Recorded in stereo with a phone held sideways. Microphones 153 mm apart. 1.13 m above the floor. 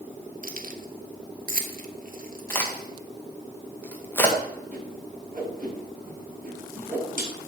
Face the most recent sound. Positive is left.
turn(degrees=-55)  # may be behind; listen again after turning